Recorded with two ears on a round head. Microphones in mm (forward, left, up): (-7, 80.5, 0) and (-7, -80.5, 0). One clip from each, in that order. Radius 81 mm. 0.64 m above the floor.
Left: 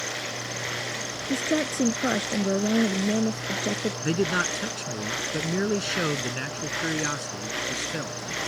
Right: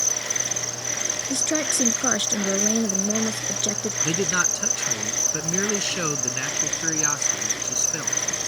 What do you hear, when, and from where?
0.0 s an insect: 85° right
1.3 s a woman speaking: 80° right
4.0 s a man speaking: 30° right (ahead or behind)